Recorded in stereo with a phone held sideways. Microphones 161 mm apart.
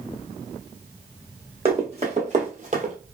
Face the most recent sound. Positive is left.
turn(degrees=-45)  # may be behind; listen again after turning